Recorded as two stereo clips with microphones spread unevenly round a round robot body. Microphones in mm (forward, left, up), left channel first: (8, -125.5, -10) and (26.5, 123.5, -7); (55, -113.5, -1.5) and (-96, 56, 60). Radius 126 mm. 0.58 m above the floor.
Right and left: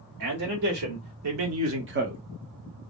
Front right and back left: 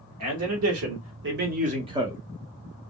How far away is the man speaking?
About 1.5 m.